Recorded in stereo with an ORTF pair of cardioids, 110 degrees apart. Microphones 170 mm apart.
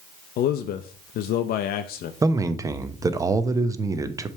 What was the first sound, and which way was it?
A man speaking, 65° left.